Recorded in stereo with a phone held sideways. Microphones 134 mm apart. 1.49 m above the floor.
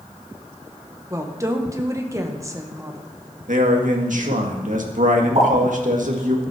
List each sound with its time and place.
1.1 s a woman speaking: 25° right (ahead or behind), 1.6 m
3.5 s a man speaking: 75° right (ahead or behind), 1.9 m
5.3 s a pop: 50° right (ahead or behind), 7.5 m